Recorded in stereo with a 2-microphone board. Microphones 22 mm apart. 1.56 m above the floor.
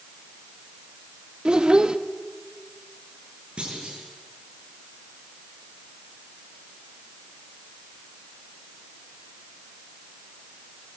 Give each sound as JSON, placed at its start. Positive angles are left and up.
{"t": 1.4, "sound": "a child speaking", "side_deg": -40, "distance_m": 1.2}
{"t": 3.6, "sound": "a clunk", "side_deg": -45, "distance_m": 7.0}